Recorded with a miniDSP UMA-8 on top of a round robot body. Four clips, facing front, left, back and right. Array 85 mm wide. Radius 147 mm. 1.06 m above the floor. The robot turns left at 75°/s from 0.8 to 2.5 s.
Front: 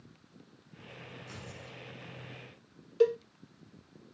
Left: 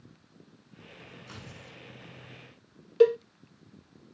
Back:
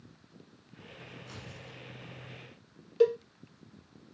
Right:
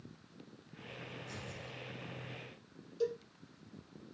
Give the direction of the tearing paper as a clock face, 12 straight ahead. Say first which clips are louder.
Even, front 1 dB; 9 o'clock.